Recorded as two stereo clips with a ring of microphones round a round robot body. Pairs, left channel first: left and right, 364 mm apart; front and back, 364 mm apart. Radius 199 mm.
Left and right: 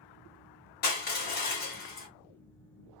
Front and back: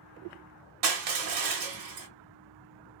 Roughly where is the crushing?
Behind left.